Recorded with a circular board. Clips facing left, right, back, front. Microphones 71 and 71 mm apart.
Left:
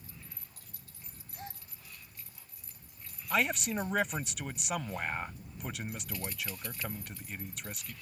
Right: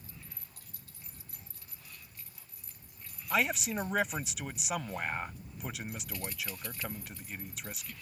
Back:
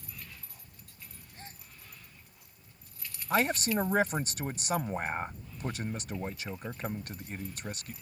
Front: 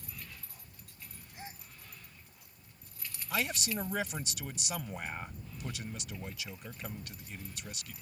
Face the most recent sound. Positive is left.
turn(degrees=-175)